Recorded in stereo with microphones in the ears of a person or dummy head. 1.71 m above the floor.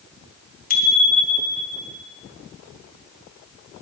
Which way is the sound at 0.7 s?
45° left (ahead or behind).